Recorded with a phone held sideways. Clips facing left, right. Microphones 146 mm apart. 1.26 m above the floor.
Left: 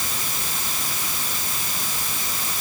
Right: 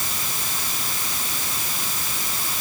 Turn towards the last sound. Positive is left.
No sound to turn to.